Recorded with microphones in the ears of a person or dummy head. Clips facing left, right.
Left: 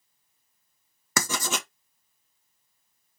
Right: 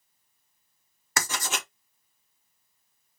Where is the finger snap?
I don't hear a finger snap.